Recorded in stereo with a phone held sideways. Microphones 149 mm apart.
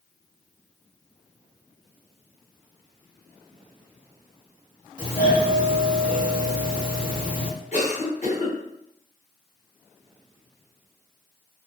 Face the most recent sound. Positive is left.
turn(degrees=50)  # may be behind; listen again after turning